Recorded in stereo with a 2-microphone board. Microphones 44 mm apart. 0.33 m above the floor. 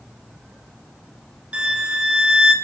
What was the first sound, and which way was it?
A violin, 25° right (ahead or behind).